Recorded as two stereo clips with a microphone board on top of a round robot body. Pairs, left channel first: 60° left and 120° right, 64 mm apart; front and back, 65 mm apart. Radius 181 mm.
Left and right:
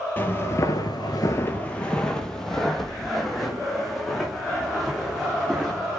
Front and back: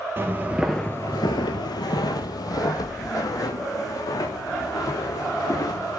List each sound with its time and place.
0.2 s footsteps: 120° left, 0.8 m; by 6.0 s 35° right, 4 m